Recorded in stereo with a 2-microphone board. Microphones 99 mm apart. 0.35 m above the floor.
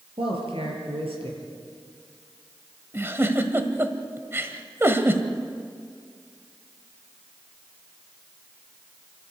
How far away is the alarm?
I don't hear an alarm.